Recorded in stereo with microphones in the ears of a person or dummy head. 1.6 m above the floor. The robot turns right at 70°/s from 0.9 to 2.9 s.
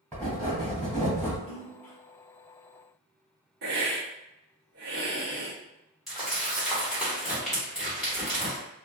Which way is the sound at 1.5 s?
5° left (ahead or behind).